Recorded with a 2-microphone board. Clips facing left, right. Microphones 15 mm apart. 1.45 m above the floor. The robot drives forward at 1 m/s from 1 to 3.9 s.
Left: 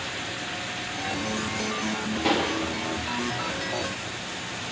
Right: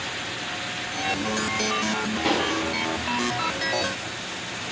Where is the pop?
5° left (ahead or behind), 8.5 m.